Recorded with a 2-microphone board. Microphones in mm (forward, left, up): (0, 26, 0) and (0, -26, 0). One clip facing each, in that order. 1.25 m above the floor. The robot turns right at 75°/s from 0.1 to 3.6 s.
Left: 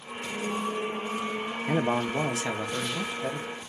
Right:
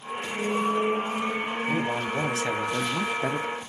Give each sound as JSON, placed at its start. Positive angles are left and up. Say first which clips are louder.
{"t": 1.7, "sound": "a man speaking", "louder": "left 3 dB", "azimuth_deg": 125, "distance_m": 0.8}